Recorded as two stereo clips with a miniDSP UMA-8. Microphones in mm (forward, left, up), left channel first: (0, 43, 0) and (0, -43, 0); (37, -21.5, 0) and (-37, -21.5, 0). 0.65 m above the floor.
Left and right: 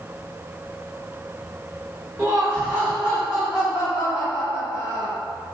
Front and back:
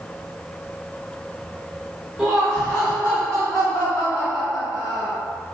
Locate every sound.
2.2 s laughter: 95° right, 1.0 m; by 5.2 s 15° right, 2 m